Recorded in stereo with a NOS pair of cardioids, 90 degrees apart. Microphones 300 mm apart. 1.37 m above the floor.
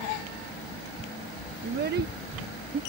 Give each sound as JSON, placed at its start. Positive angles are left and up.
{"t": 1.6, "sound": "a child speaking", "azimuth_deg": -35}